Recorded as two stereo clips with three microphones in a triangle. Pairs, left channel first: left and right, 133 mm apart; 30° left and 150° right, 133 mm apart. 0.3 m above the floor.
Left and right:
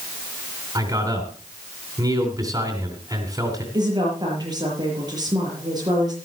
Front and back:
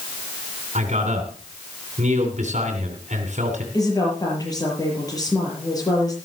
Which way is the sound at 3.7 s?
30° right.